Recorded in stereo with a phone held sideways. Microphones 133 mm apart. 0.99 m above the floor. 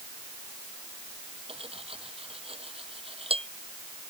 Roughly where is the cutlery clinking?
Right.